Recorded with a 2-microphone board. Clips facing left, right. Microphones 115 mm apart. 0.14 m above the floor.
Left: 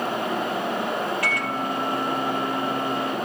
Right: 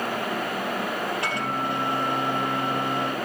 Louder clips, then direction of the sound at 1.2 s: Left 1 dB; 25° right (ahead or behind).